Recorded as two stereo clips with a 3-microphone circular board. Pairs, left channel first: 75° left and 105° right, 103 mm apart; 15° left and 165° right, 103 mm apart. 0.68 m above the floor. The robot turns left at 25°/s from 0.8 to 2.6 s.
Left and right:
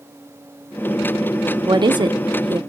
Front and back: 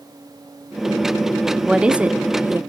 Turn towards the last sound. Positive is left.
turn(degrees=-105)